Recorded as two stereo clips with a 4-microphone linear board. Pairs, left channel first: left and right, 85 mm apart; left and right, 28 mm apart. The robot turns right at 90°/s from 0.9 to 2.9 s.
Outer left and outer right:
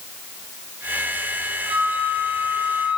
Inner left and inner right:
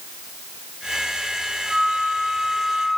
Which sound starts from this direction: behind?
A flute, at 1.7 s.